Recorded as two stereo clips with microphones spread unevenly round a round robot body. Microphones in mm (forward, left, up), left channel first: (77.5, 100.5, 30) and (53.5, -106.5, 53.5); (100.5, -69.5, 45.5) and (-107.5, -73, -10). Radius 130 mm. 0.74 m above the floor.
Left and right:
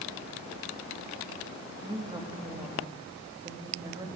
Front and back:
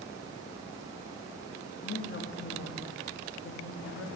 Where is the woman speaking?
25° right, 1.4 m.